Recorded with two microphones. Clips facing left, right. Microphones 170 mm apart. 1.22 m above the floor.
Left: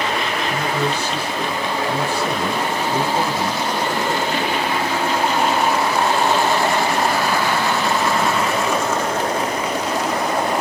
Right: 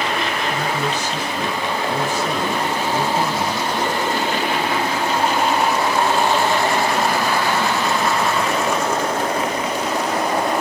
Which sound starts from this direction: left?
A man speaking, at 0.5 s.